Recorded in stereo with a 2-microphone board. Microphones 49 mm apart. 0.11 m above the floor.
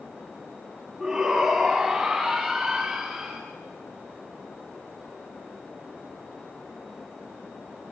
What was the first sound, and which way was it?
A shout, centre (ahead or behind).